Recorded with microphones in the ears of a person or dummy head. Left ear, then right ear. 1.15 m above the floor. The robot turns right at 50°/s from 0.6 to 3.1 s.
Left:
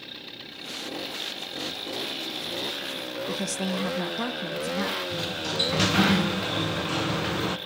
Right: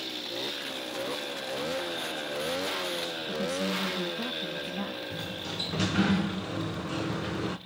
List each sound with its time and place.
3.3 s a woman speaking: 75° left (ahead or behind), 1.4 m
5.1 s a sliding door: 15° left (ahead or behind), 0.7 m